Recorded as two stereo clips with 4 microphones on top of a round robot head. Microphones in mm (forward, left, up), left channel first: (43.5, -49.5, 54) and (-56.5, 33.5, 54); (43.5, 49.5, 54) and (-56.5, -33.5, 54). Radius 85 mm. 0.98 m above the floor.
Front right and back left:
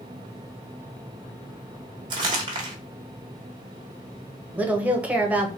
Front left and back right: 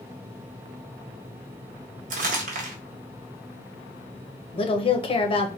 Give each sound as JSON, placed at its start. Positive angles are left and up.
{"t": 2.1, "sound": "crumpling", "azimuth_deg": -165, "distance_m": 1.1}
{"t": 4.5, "sound": "a woman speaking", "azimuth_deg": 65, "distance_m": 1.0}